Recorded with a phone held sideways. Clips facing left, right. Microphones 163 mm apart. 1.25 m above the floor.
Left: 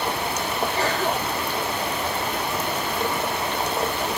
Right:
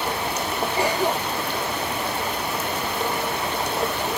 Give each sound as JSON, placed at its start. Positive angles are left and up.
{"t": 0.8, "sound": "a cough", "side_deg": -15}